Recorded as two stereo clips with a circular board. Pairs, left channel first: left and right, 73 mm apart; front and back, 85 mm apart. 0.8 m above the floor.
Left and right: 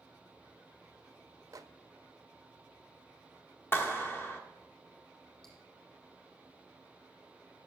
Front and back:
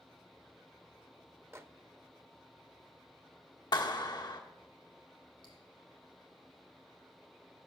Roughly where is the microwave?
Behind right.